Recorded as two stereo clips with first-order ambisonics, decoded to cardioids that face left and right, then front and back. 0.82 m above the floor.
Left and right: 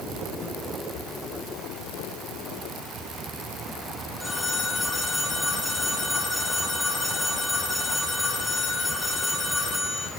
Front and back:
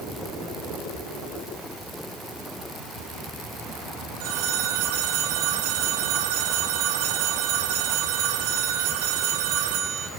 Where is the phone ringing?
170° left, 2 m.